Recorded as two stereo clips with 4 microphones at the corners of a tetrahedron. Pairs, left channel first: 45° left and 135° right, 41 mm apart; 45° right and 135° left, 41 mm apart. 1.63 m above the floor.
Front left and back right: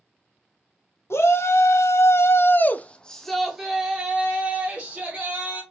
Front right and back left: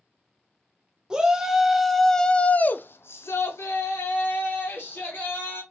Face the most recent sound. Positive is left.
turn(degrees=-75)